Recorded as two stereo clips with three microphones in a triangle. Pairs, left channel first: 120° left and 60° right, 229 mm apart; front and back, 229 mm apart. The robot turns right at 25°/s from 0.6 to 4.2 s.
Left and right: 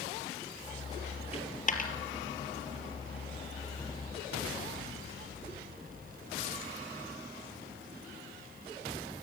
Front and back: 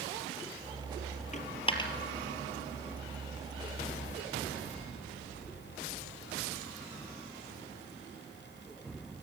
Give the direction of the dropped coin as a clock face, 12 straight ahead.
10 o'clock.